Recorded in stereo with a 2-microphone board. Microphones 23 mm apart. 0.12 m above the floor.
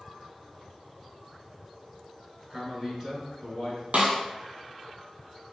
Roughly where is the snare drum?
Right.